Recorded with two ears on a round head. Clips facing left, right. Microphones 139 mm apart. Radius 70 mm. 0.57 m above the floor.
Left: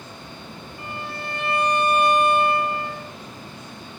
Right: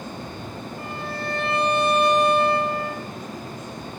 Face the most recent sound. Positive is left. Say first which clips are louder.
# right 1 dB
turn(degrees=-80)